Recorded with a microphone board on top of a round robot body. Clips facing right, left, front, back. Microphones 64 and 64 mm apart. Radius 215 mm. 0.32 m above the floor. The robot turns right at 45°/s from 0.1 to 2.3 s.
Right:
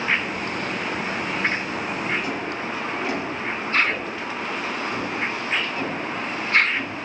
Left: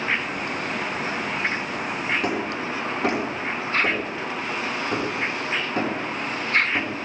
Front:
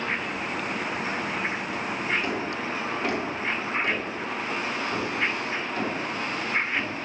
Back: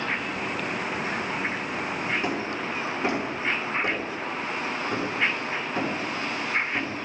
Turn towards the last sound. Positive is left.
turn(degrees=115)